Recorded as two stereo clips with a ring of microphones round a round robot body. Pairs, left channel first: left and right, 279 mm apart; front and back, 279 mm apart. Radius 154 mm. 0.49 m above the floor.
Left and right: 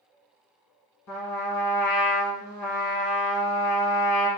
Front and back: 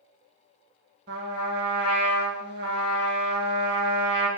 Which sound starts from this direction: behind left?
A trumpet, at 1.1 s.